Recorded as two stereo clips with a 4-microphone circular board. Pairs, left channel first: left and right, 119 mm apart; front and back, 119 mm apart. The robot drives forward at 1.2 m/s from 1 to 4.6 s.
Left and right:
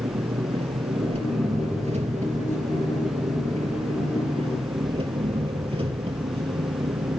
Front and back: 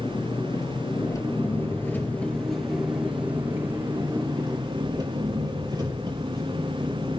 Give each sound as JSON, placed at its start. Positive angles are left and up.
{"t": 0.0, "sound": "an engine running", "azimuth_deg": -60, "distance_m": 3.5}